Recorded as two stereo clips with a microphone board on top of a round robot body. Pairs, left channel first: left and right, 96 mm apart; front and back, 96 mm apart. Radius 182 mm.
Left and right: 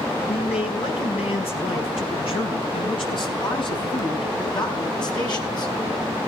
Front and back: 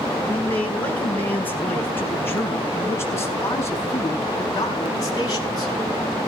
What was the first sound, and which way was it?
A man speaking, 75° left.